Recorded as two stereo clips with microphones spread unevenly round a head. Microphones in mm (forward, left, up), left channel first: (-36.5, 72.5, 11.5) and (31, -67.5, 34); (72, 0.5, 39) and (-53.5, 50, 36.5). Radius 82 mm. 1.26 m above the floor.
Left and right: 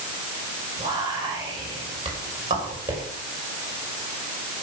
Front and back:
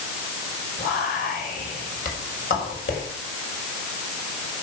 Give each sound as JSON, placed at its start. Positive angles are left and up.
{"t": 0.8, "sound": "whispering", "azimuth_deg": 0, "distance_m": 6.0}